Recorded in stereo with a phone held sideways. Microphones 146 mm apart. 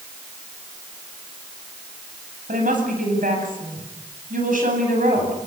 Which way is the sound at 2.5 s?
85° right.